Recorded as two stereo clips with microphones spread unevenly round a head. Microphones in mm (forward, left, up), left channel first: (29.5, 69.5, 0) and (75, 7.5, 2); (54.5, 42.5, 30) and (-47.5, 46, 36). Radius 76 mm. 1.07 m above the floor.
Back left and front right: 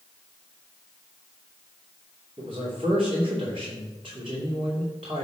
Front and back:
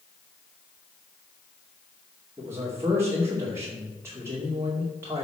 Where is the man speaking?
110° right, 2.5 m.